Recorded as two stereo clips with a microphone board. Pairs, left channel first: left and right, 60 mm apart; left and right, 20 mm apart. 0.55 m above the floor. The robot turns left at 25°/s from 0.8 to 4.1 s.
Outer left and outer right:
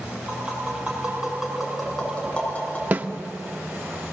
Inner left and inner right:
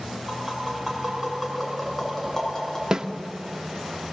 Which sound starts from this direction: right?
A snare drum, at 2.9 s.